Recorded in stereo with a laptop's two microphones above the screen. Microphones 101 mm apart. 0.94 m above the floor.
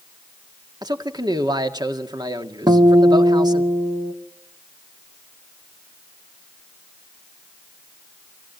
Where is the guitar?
40° right (ahead or behind), 1.9 m.